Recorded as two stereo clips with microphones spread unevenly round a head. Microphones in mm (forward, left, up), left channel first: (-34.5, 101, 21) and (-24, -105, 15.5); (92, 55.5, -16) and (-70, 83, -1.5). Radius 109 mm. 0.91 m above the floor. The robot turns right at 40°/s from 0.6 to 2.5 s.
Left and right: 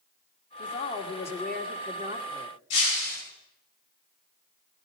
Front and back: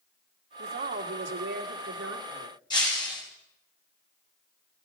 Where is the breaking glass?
55° left, 9.5 m.